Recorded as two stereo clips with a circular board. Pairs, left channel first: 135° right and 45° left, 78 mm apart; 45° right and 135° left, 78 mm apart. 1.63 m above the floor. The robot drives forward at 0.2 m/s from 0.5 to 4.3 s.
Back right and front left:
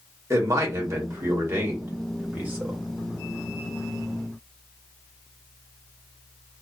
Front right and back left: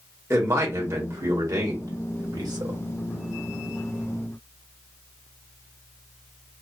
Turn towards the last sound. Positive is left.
turn(degrees=125)